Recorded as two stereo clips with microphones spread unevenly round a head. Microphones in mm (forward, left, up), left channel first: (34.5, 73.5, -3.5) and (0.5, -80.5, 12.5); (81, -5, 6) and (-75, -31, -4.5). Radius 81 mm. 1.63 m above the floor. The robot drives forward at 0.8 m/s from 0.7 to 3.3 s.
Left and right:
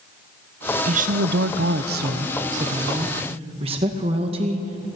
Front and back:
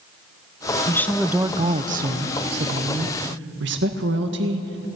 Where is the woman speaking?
60° right, 0.7 m; by 4.8 s 160° right, 1.7 m.